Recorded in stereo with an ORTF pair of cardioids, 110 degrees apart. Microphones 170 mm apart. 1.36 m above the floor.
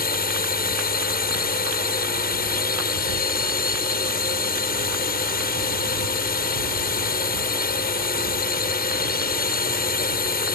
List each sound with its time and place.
0.0 s a drone: 65° left